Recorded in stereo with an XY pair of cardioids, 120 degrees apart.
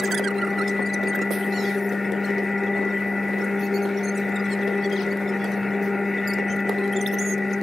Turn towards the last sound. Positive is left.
turn(degrees=15)